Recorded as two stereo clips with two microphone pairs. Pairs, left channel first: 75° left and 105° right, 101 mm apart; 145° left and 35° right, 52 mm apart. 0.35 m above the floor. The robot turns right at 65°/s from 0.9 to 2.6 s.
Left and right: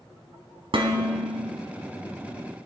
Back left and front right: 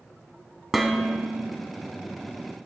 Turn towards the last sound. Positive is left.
turn(degrees=-15)